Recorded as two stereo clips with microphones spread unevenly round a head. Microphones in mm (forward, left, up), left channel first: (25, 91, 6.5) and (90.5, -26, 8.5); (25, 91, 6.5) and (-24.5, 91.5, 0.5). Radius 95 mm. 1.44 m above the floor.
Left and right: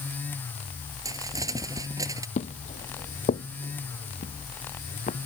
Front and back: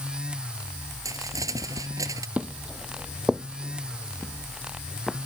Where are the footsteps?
115° left; by 5.3 s 85° left.